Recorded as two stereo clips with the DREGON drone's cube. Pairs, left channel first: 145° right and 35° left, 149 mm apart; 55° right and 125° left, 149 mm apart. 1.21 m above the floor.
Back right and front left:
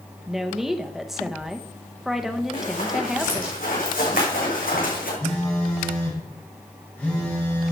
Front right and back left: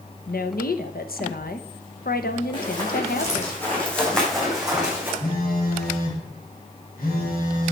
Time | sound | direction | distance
0.3 | a woman speaking | 55° right | 0.9 m
2.5 | running footsteps | 115° right | 4.5 m
5.2 | a phone buzzing | 70° right | 3.5 m